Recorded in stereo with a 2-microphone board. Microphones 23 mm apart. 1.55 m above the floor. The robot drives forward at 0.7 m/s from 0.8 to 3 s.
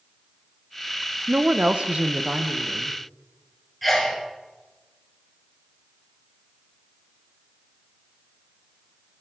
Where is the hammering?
I don't hear hammering.